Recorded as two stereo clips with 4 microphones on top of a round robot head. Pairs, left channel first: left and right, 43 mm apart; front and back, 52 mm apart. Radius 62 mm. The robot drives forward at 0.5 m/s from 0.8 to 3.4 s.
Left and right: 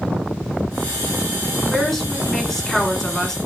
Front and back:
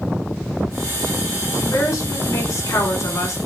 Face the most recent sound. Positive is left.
turn(degrees=15)